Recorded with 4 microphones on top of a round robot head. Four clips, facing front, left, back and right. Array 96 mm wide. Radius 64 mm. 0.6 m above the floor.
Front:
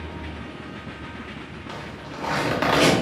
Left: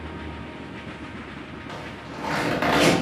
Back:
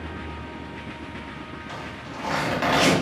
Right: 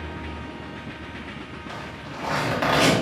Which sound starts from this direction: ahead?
A zipper, at 1.7 s.